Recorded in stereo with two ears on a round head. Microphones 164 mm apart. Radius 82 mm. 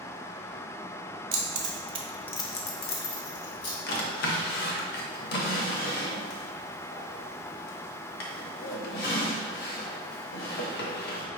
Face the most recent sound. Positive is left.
turn(degrees=55)  # may be behind; listen again after turning